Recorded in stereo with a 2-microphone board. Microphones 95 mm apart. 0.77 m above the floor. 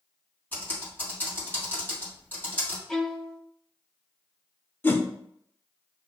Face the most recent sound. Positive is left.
turn(degrees=20)  # may be behind; listen again after turning